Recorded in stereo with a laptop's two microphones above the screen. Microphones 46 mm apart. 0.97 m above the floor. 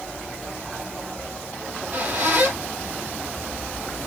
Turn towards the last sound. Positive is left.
turn(degrees=-45)  # may be behind; listen again after turning